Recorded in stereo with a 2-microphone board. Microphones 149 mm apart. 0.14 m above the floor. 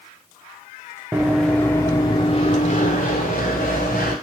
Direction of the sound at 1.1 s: 10° right (ahead or behind).